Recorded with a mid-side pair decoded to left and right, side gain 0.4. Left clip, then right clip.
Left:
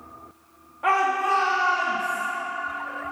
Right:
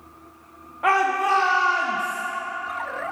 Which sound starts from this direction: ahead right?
A shout, at 0.8 s.